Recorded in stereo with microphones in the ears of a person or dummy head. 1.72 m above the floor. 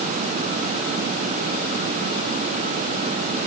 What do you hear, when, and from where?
Only background noise.